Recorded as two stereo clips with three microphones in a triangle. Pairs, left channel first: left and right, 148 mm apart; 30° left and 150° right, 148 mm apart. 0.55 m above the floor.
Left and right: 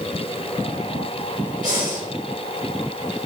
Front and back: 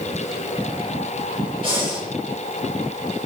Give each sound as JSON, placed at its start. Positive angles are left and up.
{"t": 1.6, "sound": "breathing", "azimuth_deg": -100, "distance_m": 2.5}